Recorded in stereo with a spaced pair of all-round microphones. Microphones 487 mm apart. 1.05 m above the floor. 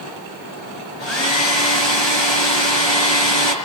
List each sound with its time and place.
1.0 s a hair dryer: 65° left (ahead or behind), 5.5 m